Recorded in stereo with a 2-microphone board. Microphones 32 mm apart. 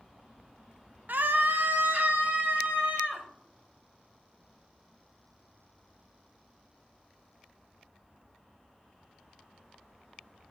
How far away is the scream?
About 0.6 m.